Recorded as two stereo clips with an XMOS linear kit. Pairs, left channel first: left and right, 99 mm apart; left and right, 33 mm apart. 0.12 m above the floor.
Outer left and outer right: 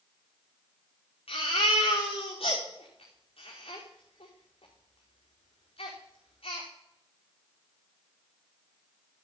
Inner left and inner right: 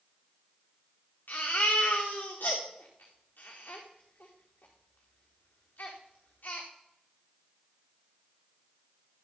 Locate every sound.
1.3 s a baby crying: 85° left, 4.5 m